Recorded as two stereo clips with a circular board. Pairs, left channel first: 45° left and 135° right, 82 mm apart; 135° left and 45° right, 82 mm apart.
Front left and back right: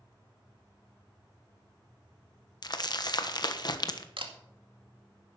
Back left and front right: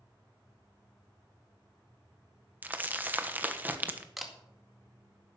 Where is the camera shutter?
135° right, 1.9 m.